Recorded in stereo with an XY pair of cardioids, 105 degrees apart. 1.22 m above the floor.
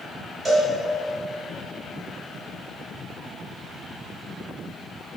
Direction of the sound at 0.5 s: 40° right.